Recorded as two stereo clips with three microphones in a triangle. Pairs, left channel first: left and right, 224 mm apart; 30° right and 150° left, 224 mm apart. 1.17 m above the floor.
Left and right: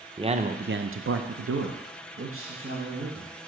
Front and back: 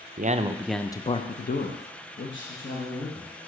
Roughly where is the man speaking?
Behind right.